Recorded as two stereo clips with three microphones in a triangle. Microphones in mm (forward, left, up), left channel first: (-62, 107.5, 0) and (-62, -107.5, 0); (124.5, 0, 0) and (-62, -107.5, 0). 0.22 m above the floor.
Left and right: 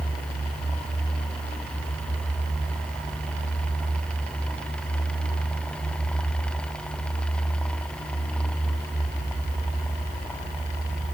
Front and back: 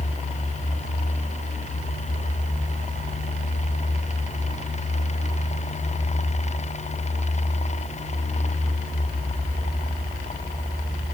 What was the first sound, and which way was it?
Only background noise.